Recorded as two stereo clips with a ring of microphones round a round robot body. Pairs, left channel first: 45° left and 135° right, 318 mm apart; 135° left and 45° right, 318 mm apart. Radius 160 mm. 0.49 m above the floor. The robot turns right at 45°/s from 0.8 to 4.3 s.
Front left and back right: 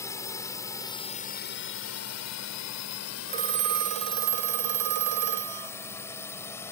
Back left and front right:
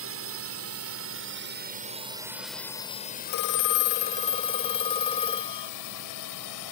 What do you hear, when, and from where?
0.0 s a drone: 30° right; by 6.7 s 125° left
3.3 s a phone ringing: 160° left; by 5.7 s 150° right